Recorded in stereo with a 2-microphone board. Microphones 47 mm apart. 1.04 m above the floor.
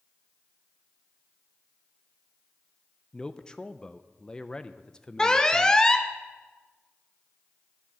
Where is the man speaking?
15° left (ahead or behind), 0.6 m.